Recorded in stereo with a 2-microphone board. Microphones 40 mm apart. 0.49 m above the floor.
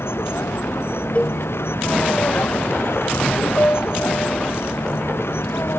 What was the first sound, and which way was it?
A vehicle, 85° left.